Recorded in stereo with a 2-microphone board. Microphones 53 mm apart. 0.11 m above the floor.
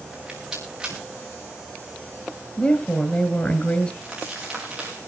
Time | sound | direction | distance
0.1 | a rattle | 10° right (ahead or behind) | 5.5 m
2.6 | a woman speaking | 30° left (ahead or behind) | 1.9 m
4.0 | crumpling | 10° right (ahead or behind) | 8.5 m